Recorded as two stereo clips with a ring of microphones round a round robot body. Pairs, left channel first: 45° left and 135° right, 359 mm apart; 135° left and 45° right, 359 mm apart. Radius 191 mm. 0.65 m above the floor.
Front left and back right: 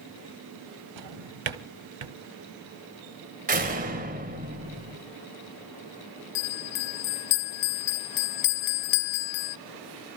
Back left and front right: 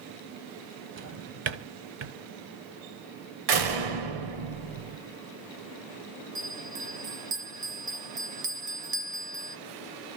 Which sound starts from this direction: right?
A drawer, at 1.0 s.